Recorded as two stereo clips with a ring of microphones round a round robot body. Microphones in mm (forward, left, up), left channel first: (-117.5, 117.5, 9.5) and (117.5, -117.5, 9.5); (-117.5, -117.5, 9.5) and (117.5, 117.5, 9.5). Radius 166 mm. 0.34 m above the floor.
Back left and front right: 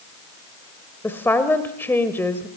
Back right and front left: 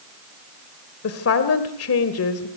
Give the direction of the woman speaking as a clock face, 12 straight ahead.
5 o'clock.